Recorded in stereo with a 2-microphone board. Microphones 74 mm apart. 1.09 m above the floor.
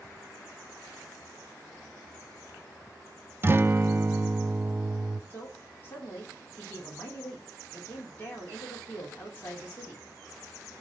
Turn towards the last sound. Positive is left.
turn(degrees=30)  # may be behind; listen again after turning